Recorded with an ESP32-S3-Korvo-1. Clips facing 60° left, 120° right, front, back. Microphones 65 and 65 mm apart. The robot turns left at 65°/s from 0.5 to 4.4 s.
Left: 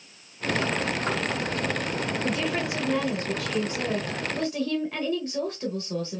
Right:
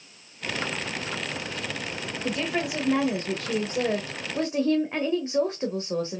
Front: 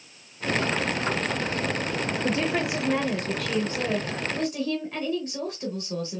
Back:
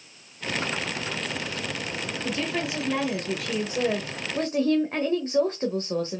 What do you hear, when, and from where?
2.2 s a woman speaking: 25° right, 1.0 m; by 6.2 s 165° right, 1.0 m